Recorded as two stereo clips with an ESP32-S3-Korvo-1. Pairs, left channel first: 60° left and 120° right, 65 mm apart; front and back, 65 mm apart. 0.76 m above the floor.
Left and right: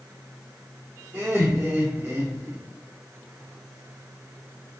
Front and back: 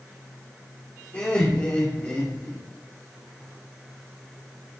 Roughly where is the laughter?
Ahead right.